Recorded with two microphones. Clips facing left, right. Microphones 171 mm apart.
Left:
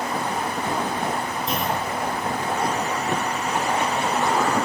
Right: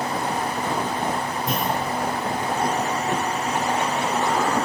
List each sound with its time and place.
1.5 s a clunk: 50° right (ahead or behind), 5 m